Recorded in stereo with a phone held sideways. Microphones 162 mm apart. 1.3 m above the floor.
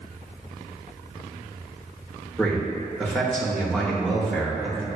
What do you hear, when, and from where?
2.4 s a man speaking: 5° left (ahead or behind), 0.8 m